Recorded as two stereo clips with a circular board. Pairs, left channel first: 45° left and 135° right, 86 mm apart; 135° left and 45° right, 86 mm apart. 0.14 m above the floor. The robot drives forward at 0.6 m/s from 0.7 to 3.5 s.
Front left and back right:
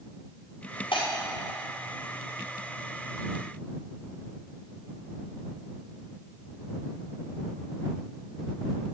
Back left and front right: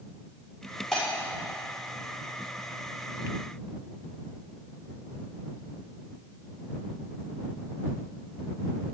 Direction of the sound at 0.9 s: 50° left.